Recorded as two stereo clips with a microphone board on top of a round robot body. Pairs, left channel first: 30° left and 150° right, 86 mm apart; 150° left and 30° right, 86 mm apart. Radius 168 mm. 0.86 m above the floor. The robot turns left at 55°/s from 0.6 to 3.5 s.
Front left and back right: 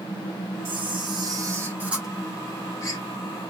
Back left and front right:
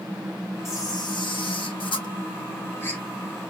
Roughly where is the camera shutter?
Behind right.